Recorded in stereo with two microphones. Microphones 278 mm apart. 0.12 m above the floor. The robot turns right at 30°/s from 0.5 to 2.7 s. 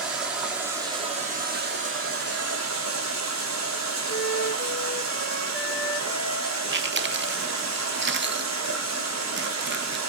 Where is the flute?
40° left (ahead or behind), 3.5 m.